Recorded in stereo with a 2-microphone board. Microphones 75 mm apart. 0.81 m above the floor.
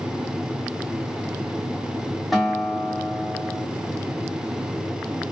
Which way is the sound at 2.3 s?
Centre (ahead or behind).